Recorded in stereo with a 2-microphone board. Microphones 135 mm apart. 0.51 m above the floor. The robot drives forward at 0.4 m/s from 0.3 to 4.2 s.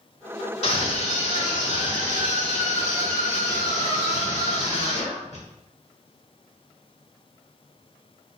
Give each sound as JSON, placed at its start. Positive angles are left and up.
{"t": 0.6, "sound": "a scream", "side_deg": 55, "distance_m": 2.0}